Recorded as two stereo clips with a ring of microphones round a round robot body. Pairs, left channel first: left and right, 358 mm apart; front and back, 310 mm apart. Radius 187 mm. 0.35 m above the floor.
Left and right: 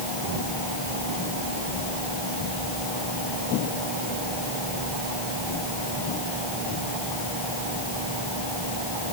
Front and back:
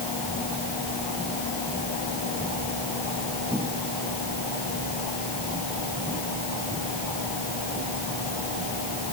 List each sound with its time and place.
Only background noise.